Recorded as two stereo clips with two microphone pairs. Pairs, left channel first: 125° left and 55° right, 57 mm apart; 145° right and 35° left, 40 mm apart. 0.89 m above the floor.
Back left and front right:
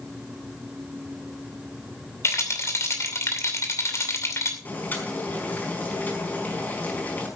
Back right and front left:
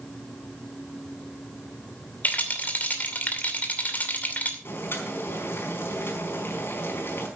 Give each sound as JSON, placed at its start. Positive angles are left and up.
{"t": 2.2, "sound": "a rattle", "azimuth_deg": 165, "distance_m": 2.5}
{"t": 4.7, "sound": "boiling", "azimuth_deg": -175, "distance_m": 4.5}